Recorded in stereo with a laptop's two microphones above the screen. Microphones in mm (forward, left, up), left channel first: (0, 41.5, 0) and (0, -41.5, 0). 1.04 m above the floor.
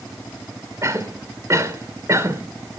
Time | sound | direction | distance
0.8 | a cough | 35° right (ahead or behind) | 3 m